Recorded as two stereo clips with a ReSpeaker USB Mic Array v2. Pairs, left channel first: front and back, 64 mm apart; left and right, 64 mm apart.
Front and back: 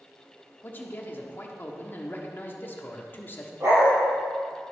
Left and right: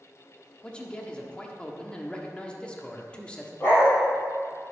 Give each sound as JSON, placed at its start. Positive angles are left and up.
{"t": 0.6, "sound": "a man speaking", "azimuth_deg": 25, "distance_m": 1.1}
{"t": 3.6, "sound": "a dog barking", "azimuth_deg": 145, "distance_m": 3.5}